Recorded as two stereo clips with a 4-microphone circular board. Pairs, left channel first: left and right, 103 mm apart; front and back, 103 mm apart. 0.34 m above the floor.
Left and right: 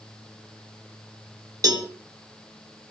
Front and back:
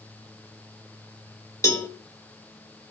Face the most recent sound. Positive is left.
turn(degrees=-50)